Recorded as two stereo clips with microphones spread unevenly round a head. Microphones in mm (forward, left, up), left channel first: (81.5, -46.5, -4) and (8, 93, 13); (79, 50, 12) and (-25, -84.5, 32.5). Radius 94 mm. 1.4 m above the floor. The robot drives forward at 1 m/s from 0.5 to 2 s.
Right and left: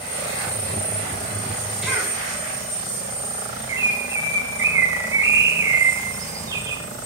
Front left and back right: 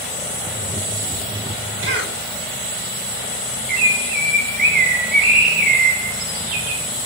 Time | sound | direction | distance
1.8 | a cough | 155° right | 6 m
3.7 | a bird | 170° right | 3.5 m